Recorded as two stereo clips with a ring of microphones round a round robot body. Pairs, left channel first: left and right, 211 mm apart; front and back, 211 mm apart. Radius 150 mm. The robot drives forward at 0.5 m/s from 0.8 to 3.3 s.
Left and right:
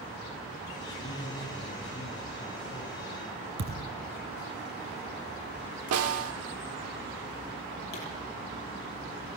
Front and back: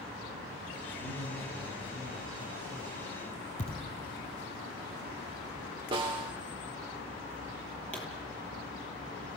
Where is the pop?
85° left, 9 m.